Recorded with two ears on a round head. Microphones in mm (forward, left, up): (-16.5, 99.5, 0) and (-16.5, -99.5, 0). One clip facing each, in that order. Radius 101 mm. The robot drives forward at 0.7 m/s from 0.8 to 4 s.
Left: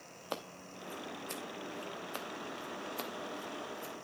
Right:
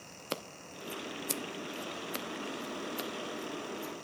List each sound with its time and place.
0.3 s scissors: 30° right (ahead or behind), 0.7 m; by 3.9 s 10° right (ahead or behind), 1.8 m